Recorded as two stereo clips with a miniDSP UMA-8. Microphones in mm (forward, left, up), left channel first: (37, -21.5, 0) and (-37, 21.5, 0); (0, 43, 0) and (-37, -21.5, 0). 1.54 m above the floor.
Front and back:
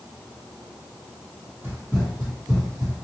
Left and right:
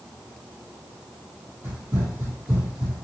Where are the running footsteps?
155° right, 1.8 m; by 3.0 s 80° right, 1.5 m.